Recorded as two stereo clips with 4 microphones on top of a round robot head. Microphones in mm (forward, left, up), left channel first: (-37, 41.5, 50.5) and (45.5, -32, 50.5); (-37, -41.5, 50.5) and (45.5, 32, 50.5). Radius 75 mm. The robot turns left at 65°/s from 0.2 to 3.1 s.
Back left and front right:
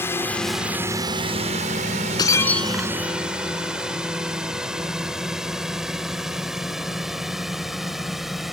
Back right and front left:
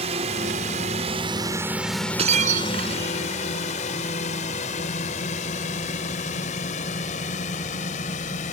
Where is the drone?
70° left; by 8.5 s 130° right.